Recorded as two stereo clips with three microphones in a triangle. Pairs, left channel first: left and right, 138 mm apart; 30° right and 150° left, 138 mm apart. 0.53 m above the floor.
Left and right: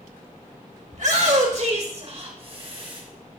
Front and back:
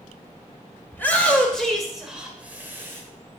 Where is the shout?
105° right, 1.8 m; by 3.0 s 140° right, 2 m.